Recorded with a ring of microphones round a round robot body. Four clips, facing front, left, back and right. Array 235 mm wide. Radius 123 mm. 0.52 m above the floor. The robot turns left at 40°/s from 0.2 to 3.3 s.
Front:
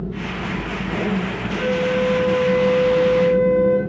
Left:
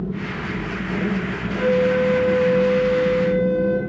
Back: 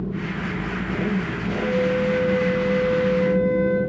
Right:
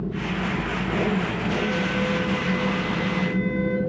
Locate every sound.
1.6 s a flute: 55° left, 5.5 m; by 3.8 s 15° right, 5.5 m